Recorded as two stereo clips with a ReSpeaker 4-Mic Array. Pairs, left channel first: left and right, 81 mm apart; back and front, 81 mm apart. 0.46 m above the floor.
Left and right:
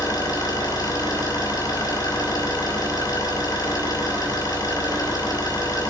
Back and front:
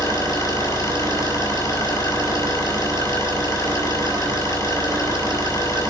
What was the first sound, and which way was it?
An engine running, 140° left.